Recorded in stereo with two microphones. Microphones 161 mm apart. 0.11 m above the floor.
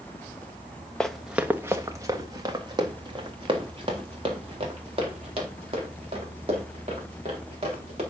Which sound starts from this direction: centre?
Running footsteps, at 1.0 s.